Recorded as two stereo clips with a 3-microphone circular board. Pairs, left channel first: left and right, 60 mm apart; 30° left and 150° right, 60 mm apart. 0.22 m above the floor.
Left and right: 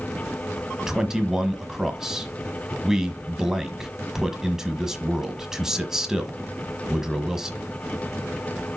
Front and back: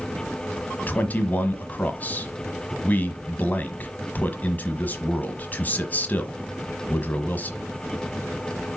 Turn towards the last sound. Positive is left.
turn(degrees=-15)